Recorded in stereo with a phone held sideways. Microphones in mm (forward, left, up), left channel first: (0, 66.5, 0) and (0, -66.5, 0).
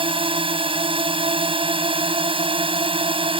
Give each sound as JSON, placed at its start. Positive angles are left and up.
{"t": 0.0, "sound": "a drone", "side_deg": -40}